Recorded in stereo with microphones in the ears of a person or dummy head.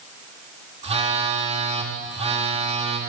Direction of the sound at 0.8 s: 35° right (ahead or behind).